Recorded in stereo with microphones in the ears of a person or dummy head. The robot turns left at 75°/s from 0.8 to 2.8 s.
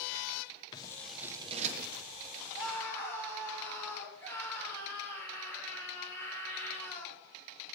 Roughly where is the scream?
Centre.